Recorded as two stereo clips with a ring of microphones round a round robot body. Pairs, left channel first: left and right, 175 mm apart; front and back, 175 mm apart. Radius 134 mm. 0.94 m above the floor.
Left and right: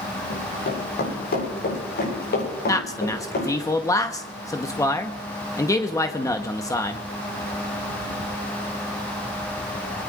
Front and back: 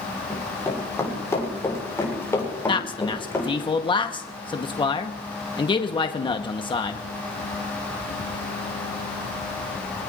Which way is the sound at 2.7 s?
35° left.